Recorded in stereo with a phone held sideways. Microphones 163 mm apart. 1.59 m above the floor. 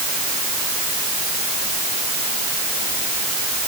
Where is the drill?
No drill in this recording.